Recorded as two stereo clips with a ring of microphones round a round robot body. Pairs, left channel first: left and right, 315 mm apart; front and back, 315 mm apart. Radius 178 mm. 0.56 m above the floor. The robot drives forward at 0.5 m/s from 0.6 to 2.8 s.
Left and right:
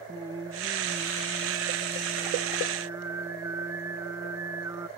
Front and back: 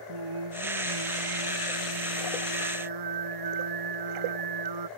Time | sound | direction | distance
0.1 | singing | 170° right | ?